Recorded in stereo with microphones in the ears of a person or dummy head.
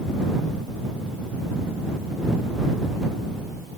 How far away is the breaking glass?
No breaking glass in this recording.